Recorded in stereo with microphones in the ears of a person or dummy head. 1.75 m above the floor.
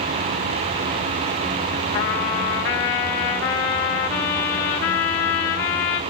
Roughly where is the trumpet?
Centre.